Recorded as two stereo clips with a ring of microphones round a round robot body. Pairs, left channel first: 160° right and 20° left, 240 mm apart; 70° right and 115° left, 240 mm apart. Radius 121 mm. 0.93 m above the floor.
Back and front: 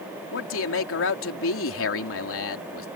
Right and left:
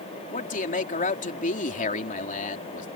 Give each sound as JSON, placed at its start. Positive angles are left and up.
{"t": 0.3, "sound": "a man speaking", "azimuth_deg": -125}